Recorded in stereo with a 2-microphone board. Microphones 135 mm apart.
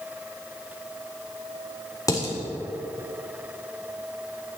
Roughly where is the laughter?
No laughter in this recording.